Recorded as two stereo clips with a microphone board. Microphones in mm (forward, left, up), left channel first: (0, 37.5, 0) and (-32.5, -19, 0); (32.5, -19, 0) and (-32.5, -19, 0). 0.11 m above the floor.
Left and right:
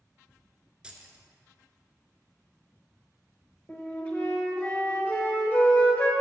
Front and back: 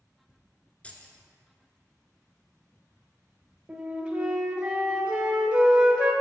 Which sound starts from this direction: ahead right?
Keys jangling, at 0.8 s.